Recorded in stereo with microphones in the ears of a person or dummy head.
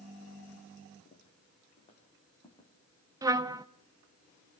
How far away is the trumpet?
About 0.6 m.